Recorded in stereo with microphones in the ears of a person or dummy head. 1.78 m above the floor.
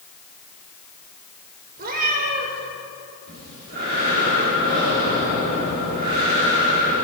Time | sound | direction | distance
1.8 | a cat meowing | 55° right (ahead or behind) | 3 m
3.3 | breathing | 50° right (ahead or behind) | 4 m